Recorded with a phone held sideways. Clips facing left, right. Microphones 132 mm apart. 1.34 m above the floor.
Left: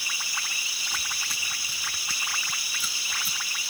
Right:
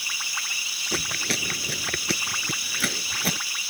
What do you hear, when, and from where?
0.9 s chewing: 75° right (ahead or behind)